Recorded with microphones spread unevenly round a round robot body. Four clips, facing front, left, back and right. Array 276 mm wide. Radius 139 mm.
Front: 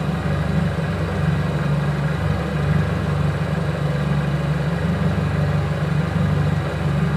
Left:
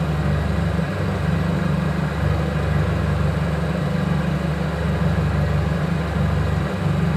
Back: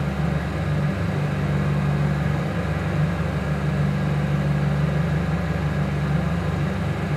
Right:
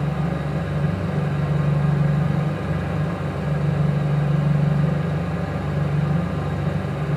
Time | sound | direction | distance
0.0 | an engine running | 40° left | 1.4 m